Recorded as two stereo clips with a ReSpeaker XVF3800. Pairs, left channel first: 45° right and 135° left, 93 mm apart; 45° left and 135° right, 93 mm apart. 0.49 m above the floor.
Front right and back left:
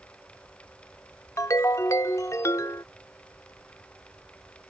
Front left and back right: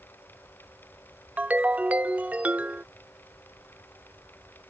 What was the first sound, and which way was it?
A ringtone, 70° right.